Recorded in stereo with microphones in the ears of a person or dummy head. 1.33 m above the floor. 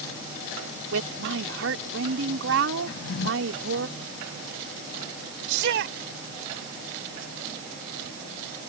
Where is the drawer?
80° left.